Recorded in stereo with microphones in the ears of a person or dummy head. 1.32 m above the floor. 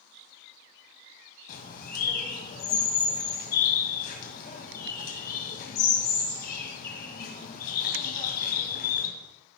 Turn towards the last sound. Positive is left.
turn(degrees=50)  # may be behind; listen again after turning